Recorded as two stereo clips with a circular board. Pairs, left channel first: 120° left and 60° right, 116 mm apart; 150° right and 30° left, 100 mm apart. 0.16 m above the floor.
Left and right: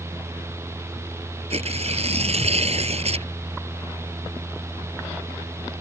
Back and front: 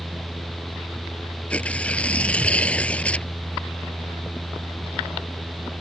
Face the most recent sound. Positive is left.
turn(degrees=-75)